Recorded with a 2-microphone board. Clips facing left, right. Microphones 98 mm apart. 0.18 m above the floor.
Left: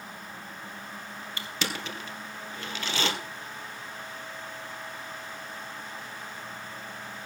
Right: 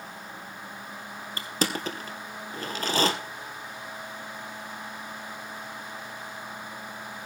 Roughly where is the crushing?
Right.